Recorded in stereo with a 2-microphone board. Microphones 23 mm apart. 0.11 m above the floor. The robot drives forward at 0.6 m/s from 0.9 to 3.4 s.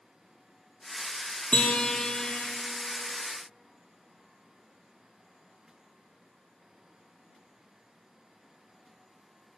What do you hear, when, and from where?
1.5 s a guitar: 70° left (ahead or behind), 0.5 m; by 2.4 s 40° left (ahead or behind), 0.8 m